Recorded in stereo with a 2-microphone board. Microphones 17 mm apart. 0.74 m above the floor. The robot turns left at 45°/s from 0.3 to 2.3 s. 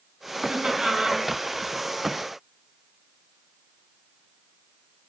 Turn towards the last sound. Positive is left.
turn(degrees=175)